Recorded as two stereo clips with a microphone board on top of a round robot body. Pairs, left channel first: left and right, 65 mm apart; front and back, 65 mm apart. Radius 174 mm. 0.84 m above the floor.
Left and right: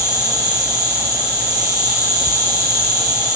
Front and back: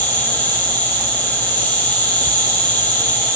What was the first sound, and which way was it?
An insect, 65° right.